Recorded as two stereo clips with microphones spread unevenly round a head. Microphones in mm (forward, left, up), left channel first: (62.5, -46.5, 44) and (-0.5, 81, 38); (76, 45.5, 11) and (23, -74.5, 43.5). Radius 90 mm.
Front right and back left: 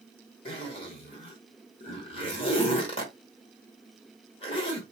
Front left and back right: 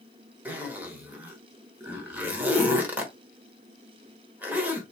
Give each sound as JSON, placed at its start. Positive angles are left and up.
{"t": 0.5, "sound": "a zipper", "azimuth_deg": -70, "distance_m": 1.0}